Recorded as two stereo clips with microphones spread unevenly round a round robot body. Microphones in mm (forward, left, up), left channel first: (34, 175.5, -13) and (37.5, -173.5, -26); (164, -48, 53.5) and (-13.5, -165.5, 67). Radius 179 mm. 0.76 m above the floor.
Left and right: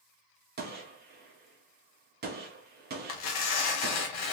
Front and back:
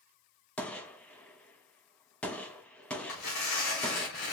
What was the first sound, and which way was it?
A gunshot, 45° right.